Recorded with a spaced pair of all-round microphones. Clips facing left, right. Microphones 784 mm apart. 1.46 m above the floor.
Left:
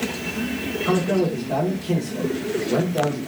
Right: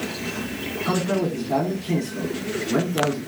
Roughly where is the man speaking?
Centre.